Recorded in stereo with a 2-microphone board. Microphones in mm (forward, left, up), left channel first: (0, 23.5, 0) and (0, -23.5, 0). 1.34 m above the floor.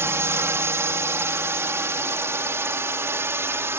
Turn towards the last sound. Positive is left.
turn(degrees=-65)  # may be behind; listen again after turning